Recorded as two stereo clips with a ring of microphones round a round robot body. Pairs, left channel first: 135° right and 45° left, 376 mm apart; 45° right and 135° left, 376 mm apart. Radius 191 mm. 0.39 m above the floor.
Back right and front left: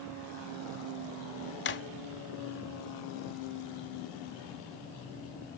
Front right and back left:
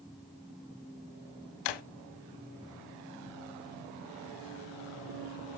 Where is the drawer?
75° right, 0.8 m.